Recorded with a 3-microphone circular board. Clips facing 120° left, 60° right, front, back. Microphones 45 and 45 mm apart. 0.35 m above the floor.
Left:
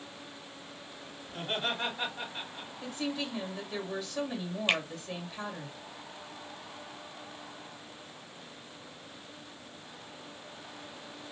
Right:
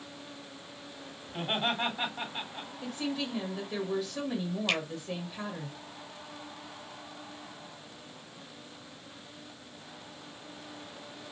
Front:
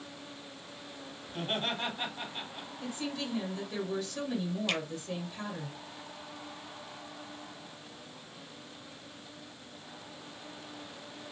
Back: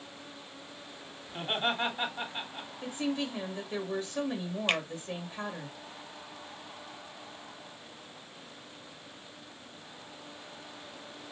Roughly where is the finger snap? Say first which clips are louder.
Left 2 dB, back 5 dB; behind.